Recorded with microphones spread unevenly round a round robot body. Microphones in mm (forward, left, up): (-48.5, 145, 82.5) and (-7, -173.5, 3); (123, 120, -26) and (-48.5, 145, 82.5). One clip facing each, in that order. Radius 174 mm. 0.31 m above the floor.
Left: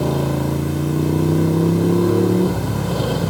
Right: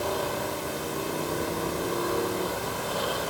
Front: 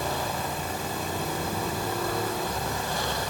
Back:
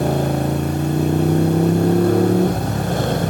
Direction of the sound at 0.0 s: 140° left.